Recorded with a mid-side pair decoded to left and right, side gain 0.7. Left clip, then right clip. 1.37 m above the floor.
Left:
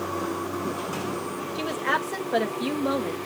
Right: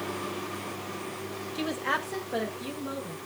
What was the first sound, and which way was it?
A woman speaking, straight ahead.